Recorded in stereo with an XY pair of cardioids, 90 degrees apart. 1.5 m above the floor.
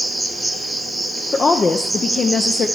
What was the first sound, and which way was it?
An insect, 15° right.